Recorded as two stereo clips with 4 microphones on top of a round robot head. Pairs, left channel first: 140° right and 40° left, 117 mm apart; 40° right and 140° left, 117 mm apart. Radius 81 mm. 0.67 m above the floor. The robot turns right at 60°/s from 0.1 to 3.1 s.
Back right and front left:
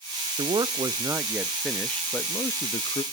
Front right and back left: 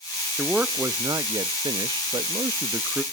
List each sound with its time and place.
0.4 s a man speaking: 50° left, 0.5 m; by 3.0 s 150° right, 0.5 m